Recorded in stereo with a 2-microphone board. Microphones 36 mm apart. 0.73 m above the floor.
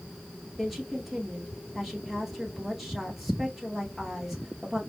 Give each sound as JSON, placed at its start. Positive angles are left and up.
{"t": 0.6, "sound": "a woman speaking", "side_deg": -5, "distance_m": 1.9}